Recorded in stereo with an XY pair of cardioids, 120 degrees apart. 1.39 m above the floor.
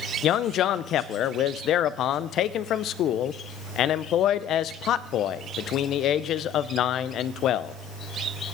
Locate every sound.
0.2 s a man speaking: 65° left, 0.6 m